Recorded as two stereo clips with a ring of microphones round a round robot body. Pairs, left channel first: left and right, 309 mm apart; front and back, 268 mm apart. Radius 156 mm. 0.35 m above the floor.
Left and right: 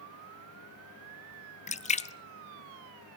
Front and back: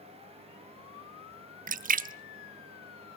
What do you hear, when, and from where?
1.7 s a splash: 145° left, 0.9 m